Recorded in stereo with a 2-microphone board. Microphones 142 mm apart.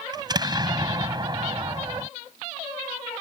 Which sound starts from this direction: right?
An explosion, at 0.1 s.